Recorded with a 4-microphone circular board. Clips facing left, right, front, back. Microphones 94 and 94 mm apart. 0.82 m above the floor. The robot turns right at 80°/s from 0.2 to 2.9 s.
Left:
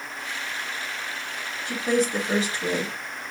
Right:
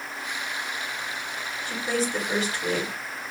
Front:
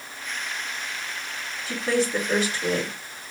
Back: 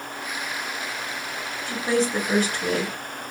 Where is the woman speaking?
85° left, 1.4 m; by 2.9 s straight behind, 1.4 m.